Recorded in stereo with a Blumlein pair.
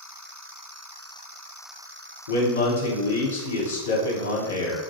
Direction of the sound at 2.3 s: 65° left.